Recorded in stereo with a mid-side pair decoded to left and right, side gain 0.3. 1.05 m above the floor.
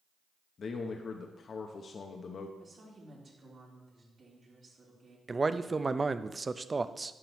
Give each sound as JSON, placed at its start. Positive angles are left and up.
{"t": 0.6, "sound": "a man speaking", "azimuth_deg": 65, "distance_m": 0.8}
{"t": 2.6, "sound": "a woman speaking", "azimuth_deg": -60, "distance_m": 3.5}
{"t": 5.3, "sound": "a man speaking", "azimuth_deg": -35, "distance_m": 0.6}